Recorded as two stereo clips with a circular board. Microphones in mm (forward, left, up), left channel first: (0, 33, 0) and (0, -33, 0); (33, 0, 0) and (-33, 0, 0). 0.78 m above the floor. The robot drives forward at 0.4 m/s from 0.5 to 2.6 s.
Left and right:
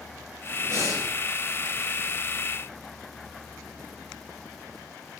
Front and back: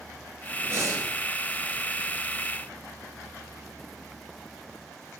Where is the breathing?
135° right, 4.5 m.